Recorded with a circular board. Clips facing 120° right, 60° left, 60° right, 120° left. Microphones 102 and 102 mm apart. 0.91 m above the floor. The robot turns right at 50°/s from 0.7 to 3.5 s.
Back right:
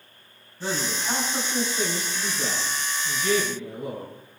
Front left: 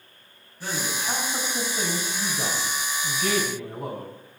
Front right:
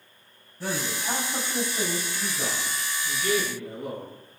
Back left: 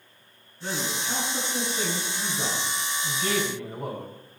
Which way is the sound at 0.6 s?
45° right.